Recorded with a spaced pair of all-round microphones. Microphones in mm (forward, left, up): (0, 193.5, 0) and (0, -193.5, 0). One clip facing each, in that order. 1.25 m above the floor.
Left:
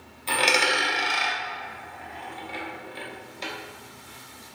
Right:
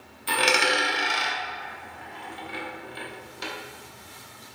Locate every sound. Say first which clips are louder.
0.3 s a dropped coin: right 1 dB; 25° right (ahead or behind), 0.6 m